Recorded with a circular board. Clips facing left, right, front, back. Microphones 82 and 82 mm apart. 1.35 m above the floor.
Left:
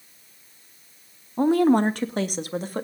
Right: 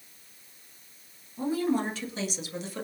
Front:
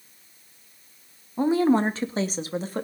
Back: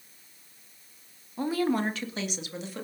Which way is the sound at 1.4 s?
65° left.